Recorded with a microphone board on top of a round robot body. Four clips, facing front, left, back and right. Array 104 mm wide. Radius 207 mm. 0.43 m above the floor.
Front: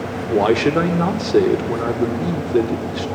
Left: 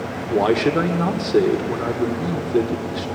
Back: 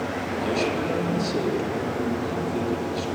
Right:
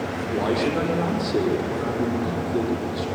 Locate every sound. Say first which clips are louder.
0.3 s a man speaking: left 6 dB, front 11 dB; 30° left, 2 m